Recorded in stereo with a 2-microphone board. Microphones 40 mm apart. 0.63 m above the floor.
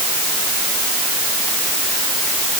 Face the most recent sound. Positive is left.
No sound to turn to.